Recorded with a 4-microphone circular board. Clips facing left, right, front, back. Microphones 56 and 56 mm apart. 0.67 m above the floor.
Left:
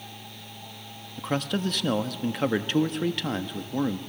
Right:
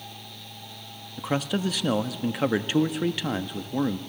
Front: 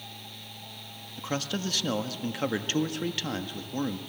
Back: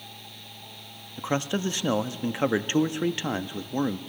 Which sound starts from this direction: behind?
A man speaking, at 1.2 s.